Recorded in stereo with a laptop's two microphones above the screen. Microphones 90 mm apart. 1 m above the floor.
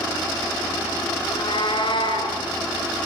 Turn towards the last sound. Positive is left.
turn(degrees=65)  # may be behind; listen again after turning